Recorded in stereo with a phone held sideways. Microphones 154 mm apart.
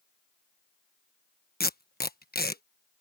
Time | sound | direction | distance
1.6 | tape being pulled | 85° left | ?